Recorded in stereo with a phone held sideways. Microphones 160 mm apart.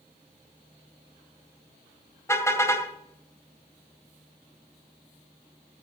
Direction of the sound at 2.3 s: 15° left (ahead or behind).